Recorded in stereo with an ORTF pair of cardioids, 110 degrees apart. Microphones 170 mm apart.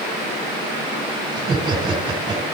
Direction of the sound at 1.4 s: 35° right.